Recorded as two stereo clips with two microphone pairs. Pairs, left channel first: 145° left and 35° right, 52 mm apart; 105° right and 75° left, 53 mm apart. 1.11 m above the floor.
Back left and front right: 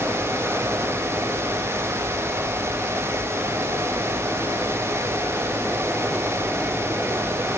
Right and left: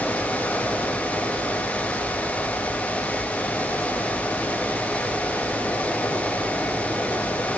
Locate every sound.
Only background noise.